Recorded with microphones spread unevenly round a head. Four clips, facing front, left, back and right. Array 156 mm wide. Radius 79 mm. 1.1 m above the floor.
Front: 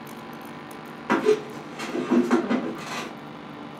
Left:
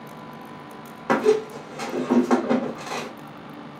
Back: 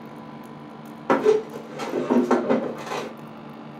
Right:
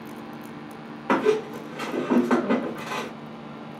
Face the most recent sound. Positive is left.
turn(degrees=180)